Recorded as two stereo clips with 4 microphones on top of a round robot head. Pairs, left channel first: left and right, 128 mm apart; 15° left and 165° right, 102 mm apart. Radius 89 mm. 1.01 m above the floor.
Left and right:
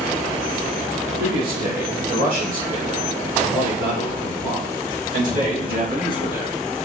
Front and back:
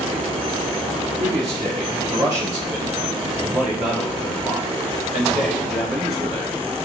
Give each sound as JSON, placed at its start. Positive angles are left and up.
{"t": 1.2, "sound": "a man speaking", "azimuth_deg": -95, "distance_m": 2.5}